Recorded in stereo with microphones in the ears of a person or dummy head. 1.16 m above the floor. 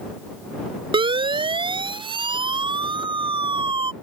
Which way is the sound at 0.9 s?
30° right (ahead or behind).